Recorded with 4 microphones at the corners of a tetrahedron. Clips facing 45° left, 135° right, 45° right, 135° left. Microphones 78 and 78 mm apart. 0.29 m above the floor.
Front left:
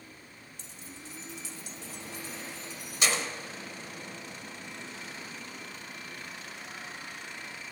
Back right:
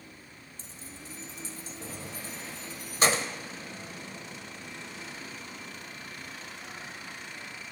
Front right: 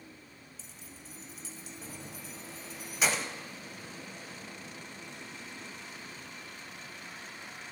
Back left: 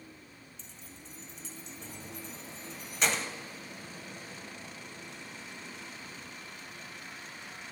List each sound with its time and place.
0.6 s keys jangling: 125° right, 1.0 m